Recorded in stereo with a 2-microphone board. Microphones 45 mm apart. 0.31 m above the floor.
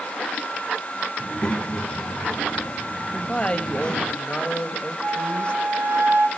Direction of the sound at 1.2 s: 20° left (ahead or behind).